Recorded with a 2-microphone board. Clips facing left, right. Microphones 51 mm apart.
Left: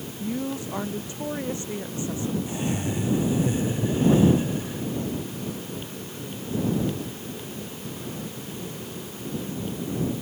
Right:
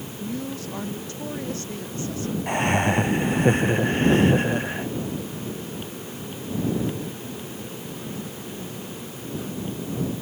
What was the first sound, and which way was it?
A woman speaking, 15° left (ahead or behind).